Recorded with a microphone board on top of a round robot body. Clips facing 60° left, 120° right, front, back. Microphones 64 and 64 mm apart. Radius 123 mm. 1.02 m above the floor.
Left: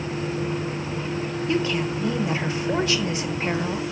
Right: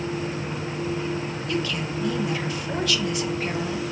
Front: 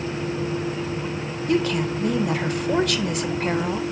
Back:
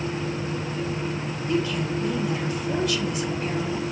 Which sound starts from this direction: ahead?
A woman speaking, at 1.5 s.